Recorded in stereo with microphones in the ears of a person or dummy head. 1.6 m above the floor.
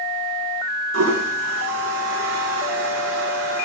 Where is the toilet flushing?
65° right (ahead or behind), 2.5 m.